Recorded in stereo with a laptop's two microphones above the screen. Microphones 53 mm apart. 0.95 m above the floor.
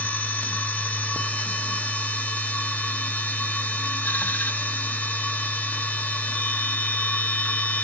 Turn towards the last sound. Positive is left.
turn(degrees=30)  # may be behind; listen again after turning